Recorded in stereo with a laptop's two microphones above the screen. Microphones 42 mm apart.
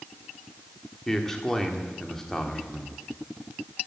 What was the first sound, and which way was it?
A man speaking, 10° left (ahead or behind).